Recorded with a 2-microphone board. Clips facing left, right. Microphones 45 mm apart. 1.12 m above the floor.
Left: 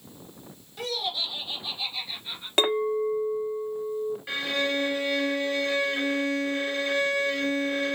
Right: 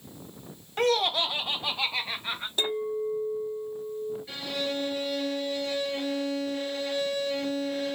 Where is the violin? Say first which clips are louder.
Left 5 dB; 75° left (ahead or behind), 3.5 m.